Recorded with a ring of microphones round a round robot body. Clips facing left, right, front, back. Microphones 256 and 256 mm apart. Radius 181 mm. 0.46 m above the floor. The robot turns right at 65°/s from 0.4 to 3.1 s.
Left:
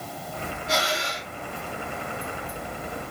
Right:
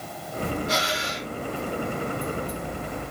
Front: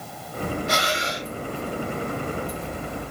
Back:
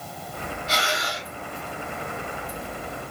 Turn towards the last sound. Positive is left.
turn(degrees=-160)